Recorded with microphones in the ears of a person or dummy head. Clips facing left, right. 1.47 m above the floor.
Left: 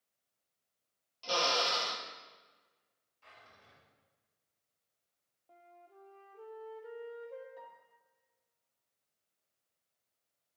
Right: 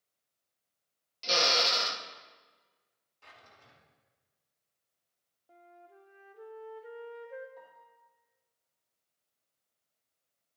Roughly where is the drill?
Right.